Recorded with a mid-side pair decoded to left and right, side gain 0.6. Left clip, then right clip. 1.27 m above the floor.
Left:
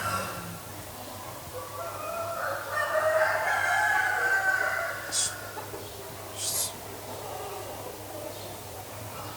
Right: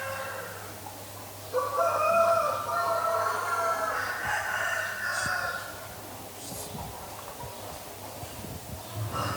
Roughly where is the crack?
I don't hear a crack.